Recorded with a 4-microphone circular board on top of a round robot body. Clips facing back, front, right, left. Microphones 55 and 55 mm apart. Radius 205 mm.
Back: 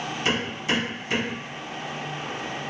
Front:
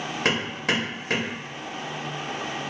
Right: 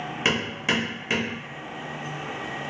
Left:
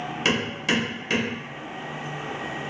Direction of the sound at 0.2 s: 20° right.